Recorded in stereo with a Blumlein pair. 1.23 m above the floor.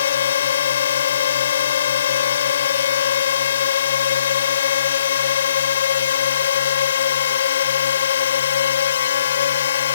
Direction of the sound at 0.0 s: 65° left.